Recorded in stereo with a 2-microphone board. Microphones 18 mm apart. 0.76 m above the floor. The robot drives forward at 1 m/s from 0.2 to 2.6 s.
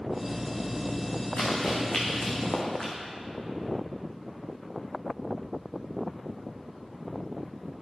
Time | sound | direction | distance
1.4 | running footsteps | 70° left (ahead or behind) | 3 m